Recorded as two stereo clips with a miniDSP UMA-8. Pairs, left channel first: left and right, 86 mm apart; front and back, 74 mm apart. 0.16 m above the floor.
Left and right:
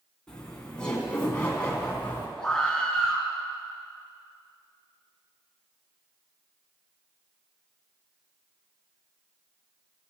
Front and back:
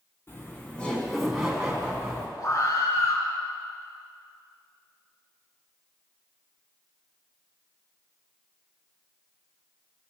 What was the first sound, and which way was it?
Laughter, 15° left.